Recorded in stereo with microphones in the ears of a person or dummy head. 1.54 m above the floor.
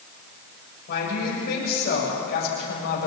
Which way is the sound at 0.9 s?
55° left (ahead or behind).